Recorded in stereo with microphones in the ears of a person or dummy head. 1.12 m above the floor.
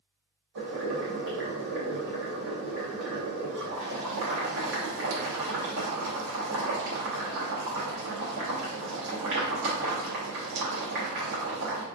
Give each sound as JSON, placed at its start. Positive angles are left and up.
{"t": 0.6, "sound": "boiling", "side_deg": -75, "distance_m": 1.2}